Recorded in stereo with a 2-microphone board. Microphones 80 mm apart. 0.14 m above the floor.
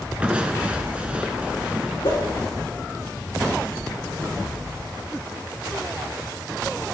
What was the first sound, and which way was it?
Crushing, 15° right (ahead or behind).